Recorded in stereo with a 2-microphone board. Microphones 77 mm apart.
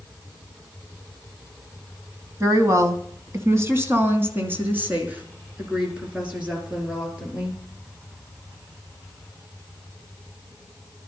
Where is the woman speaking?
45° right (ahead or behind), 1.8 m; by 7.6 s 15° right (ahead or behind), 5 m.